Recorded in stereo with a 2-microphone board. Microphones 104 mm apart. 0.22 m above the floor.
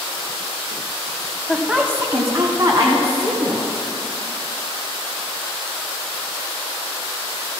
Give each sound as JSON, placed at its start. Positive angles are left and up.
{"t": 1.5, "sound": "a woman speaking", "side_deg": 5, "distance_m": 0.9}